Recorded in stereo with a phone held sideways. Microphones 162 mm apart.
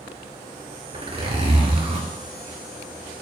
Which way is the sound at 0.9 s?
35° right (ahead or behind).